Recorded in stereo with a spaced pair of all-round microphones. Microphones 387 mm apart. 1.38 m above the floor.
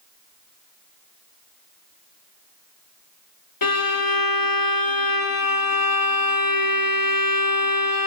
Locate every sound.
3.6 s a violin: 65° left (ahead or behind), 0.9 m